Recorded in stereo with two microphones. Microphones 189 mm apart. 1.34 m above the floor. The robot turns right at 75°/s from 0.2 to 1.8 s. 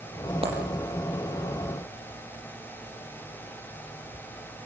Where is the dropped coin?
30° right (ahead or behind), 7 m; by 0.6 s 40° right (ahead or behind), 7 m.